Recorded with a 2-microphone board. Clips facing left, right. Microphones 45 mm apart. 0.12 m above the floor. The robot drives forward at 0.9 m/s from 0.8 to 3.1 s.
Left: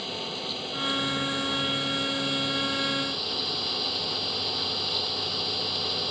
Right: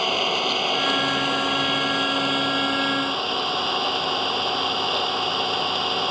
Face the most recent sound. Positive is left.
turn(degrees=-55)  # may be behind; listen again after turning